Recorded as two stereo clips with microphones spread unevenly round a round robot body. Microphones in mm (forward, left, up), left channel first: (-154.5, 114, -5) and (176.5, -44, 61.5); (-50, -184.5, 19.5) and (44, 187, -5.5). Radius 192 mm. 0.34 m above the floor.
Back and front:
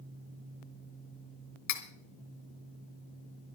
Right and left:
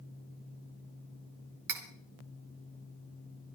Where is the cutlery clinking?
110° left, 1.9 m.